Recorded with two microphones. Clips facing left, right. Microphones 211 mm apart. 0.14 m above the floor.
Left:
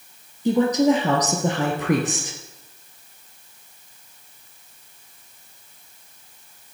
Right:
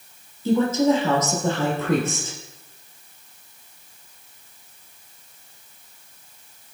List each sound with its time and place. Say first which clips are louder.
0.5 s a woman speaking: left 1 dB; 15° left (ahead or behind), 3 m